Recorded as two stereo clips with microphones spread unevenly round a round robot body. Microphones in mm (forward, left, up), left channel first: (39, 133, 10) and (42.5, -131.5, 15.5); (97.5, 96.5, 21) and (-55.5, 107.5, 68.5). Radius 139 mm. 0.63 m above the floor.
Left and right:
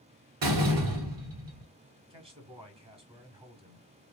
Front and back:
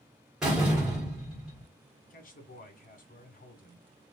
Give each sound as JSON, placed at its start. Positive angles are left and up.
{"t": 0.4, "sound": "a door slam", "azimuth_deg": -90, "distance_m": 2.0}
{"t": 2.1, "sound": "a man speaking", "azimuth_deg": -20, "distance_m": 1.9}